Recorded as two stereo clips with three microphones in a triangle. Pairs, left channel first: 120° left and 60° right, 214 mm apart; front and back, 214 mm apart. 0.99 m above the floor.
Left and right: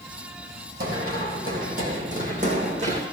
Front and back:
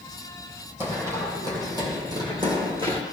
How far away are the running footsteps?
About 2.5 m.